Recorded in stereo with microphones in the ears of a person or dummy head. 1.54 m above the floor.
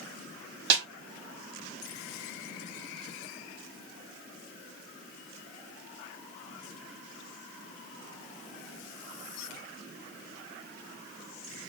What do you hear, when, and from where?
0.7 s a snare drum: 55° right (ahead or behind), 0.8 m